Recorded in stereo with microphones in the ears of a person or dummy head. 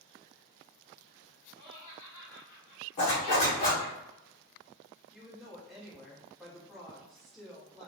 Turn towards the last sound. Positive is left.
turn(degrees=5)  # may be behind; listen again after turning